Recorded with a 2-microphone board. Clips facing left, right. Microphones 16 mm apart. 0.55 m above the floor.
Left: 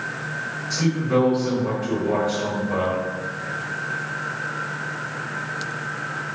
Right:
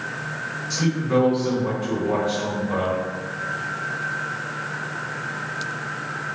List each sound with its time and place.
0.7 s a man speaking: 20° right (ahead or behind), 1.9 m